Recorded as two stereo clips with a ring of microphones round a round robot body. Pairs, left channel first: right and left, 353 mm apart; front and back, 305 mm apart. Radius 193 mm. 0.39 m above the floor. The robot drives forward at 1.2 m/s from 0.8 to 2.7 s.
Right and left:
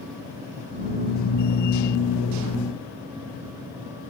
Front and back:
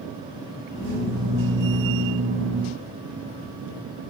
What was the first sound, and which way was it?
Only background noise.